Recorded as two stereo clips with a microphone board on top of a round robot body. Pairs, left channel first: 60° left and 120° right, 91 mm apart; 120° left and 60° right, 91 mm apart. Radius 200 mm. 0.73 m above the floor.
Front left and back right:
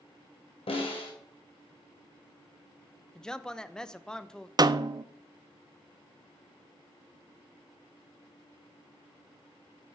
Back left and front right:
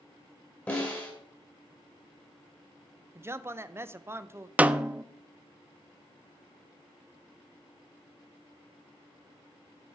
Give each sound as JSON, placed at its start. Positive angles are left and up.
{"t": 0.7, "sound": "a snare drum", "azimuth_deg": 45, "distance_m": 2.5}
{"t": 3.1, "sound": "a man speaking", "azimuth_deg": -15, "distance_m": 0.7}
{"t": 4.6, "sound": "a snare drum", "azimuth_deg": -130, "distance_m": 0.6}